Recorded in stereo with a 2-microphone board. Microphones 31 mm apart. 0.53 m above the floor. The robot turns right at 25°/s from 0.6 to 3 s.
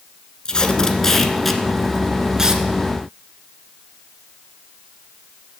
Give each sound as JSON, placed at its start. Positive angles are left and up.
{"t": 0.5, "sound": "tape being pulled", "side_deg": 25, "distance_m": 1.1}